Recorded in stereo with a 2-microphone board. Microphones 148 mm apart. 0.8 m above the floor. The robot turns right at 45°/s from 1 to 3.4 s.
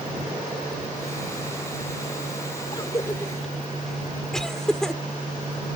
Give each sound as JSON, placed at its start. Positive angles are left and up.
{"t": 2.7, "sound": "a cough", "side_deg": 35}